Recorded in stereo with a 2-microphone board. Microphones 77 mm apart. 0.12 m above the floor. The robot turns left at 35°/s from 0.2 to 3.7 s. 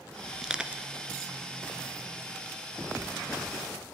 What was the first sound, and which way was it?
Crushing, 5° right (ahead or behind).